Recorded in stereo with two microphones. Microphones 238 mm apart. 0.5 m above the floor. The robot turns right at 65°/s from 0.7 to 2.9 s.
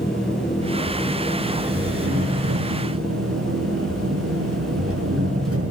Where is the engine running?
125° left, 7 m; by 5.7 s 90° right, 7 m.